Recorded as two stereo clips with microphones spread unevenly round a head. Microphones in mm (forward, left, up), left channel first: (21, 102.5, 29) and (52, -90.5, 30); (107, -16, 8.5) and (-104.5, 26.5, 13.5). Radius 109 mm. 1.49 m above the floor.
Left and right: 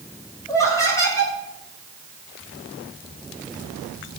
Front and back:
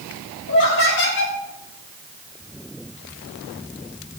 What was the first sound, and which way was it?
Laughter, 25° left.